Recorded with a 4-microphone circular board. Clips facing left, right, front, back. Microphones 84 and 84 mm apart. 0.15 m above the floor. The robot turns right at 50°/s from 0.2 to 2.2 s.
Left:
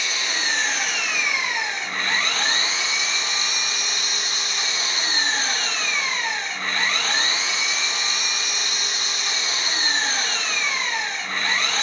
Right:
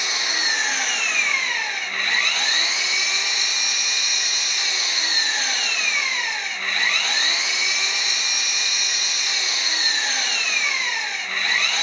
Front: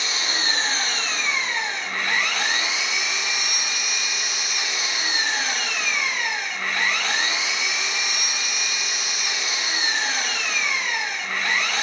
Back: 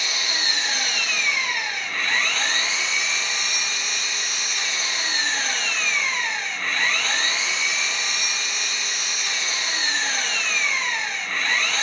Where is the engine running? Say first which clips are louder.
Right 1 dB, front 1 dB; 30° right, 1.1 m; by 11.8 s 70° left, 1.1 m.